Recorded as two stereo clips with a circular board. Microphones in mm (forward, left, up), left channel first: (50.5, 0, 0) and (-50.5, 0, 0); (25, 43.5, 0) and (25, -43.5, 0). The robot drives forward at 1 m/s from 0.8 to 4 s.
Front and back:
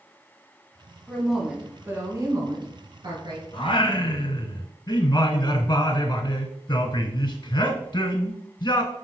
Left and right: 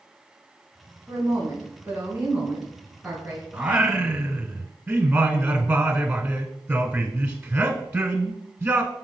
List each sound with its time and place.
1.1 s a woman speaking: 65° right, 1.3 m; by 3.4 s 165° right, 2.5 m
3.5 s singing: 10° right, 1.1 m; by 8.9 s 20° right, 0.7 m